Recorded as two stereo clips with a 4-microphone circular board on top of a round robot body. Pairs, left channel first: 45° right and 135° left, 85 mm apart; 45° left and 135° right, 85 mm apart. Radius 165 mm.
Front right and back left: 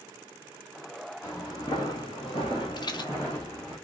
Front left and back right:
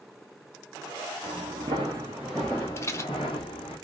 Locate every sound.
1.2 s footsteps: 105° right, 0.9 m; by 3.8 s 35° left, 0.9 m
2.8 s a rattle: 10° right, 0.7 m